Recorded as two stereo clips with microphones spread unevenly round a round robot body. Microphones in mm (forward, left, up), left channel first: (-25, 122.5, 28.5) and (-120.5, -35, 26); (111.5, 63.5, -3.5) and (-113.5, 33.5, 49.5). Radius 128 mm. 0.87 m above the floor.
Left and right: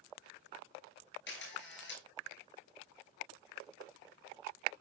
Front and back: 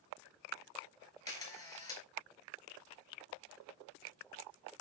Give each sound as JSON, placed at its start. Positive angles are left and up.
{"t": 1.3, "sound": "a camera shutter", "azimuth_deg": 80, "distance_m": 6.0}